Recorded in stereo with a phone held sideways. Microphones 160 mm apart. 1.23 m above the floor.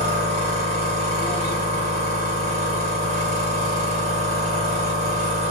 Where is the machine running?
45° right (ahead or behind), 1.3 m.